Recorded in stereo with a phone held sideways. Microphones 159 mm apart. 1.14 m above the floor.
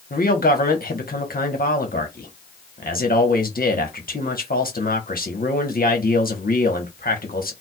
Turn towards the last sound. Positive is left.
turn(degrees=70)  # may be behind; listen again after turning